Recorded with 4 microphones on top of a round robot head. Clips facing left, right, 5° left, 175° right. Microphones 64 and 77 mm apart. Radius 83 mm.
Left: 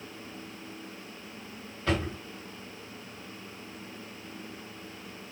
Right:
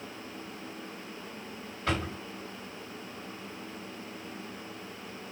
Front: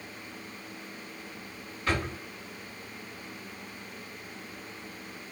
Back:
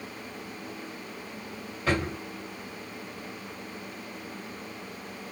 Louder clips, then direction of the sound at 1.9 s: Left 2 dB, back 3 dB; 175° right.